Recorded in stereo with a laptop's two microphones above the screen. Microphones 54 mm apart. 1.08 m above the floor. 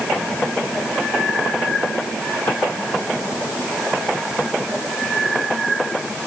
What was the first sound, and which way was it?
Only background noise.